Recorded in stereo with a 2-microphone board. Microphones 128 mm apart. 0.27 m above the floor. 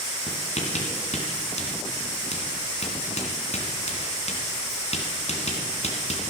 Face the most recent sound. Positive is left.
turn(degrees=60)  # may be behind; listen again after turning